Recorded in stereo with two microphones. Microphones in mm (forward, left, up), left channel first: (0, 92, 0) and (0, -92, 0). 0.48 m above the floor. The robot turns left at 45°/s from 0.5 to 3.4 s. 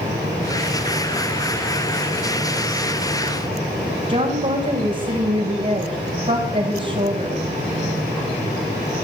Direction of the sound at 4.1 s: 40° right (ahead or behind).